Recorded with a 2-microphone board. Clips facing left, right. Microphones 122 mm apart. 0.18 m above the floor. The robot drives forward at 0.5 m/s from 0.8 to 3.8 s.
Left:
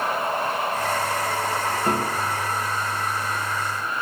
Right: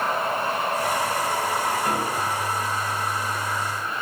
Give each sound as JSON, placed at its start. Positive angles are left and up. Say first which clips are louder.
{"t": 1.9, "sound": "a piano", "louder": "left 1 dB", "side_deg": 30, "distance_m": 2.0}